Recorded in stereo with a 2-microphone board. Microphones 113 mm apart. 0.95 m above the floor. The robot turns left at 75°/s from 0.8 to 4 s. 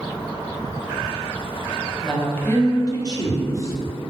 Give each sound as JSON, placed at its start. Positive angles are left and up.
{"t": 2.0, "sound": "a woman speaking", "azimuth_deg": 175, "distance_m": 0.8}